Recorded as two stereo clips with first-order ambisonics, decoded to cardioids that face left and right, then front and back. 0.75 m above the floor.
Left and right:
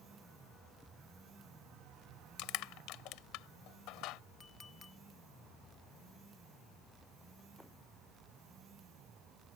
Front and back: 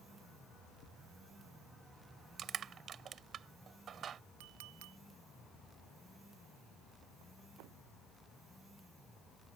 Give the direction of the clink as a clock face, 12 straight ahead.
7 o'clock.